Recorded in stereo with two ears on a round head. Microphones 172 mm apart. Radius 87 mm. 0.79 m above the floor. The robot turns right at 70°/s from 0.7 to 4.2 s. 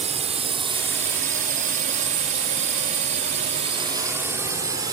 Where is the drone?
35° right (ahead or behind); by 4.9 s 20° right (ahead or behind).